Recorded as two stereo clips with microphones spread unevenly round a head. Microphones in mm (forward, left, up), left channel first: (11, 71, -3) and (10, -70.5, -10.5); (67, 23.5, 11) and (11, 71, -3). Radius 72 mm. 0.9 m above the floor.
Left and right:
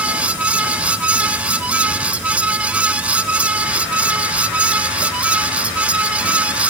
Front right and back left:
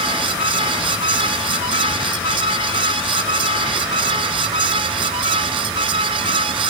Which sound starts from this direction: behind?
A fan, at 0.0 s.